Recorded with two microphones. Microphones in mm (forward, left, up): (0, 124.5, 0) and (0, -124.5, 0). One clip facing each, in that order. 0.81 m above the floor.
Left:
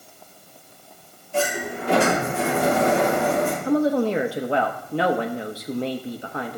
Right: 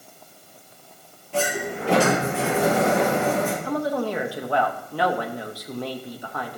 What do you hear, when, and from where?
1.3 s a sliding door: 85° right, 5 m
3.6 s a woman speaking: 25° left (ahead or behind), 0.7 m